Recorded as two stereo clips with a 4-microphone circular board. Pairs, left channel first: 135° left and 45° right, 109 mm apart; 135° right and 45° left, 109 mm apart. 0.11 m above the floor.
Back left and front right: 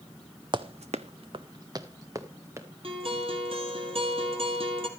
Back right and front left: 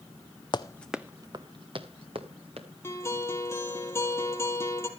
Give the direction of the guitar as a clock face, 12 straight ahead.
2 o'clock.